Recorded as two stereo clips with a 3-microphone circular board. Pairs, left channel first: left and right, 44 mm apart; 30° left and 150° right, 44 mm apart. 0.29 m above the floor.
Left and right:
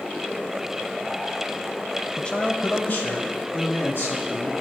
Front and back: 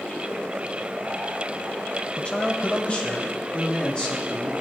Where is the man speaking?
45° left, 1.2 m; by 4.5 s 95° left, 3 m.